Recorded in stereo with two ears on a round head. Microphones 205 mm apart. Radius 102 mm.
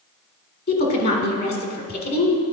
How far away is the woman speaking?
About 1.6 m.